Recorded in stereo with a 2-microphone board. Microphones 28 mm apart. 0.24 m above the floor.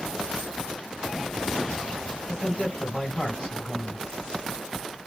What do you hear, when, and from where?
2.3 s a man speaking: 25° left (ahead or behind), 1.8 m